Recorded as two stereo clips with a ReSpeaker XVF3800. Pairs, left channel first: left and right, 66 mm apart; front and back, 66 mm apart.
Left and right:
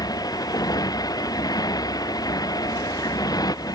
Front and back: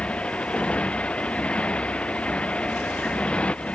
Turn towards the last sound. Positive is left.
turn(degrees=75)